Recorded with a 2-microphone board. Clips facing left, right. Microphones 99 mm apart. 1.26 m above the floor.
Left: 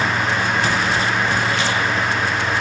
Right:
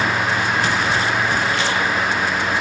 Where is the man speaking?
I don't hear a man speaking.